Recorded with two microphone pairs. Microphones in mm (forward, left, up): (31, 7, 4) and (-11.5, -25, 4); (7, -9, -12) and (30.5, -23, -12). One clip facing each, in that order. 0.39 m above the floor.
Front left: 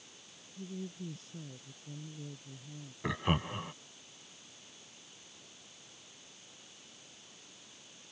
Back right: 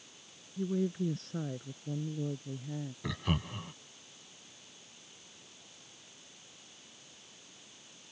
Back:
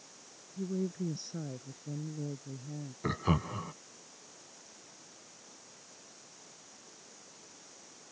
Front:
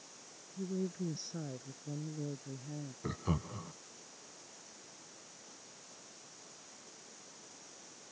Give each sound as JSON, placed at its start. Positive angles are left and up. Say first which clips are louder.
{"t": 0.6, "sound": "a woman speaking", "louder": "back right 11 dB, back 3 dB", "azimuth_deg": -135}
{"t": 3.0, "sound": "laughter", "louder": "front left 4 dB, back 7 dB", "azimuth_deg": 100}